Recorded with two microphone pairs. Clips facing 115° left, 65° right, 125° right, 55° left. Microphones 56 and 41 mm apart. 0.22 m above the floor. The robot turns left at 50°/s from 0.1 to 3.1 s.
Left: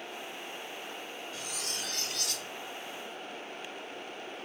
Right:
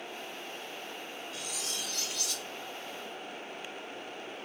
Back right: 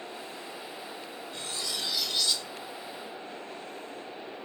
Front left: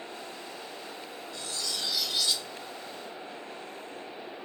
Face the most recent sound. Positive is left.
turn(degrees=90)